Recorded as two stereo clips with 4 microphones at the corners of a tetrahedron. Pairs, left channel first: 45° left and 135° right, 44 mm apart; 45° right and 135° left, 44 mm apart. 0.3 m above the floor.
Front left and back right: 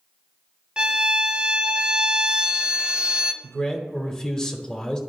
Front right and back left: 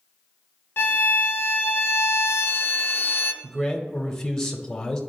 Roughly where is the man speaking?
Ahead.